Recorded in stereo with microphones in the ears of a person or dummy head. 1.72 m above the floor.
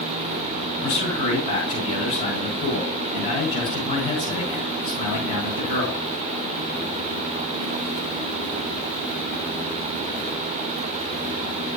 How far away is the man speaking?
About 7.5 m.